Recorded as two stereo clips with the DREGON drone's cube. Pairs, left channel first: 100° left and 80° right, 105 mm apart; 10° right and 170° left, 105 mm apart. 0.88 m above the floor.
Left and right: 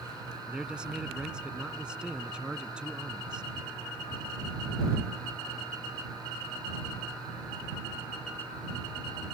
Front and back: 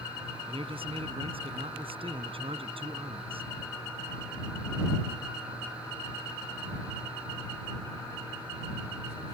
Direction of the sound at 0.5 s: 160° right.